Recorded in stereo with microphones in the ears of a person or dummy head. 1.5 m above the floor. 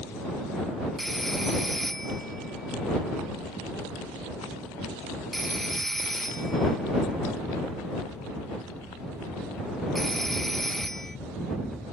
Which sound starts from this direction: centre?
A phone ringing, at 1.0 s.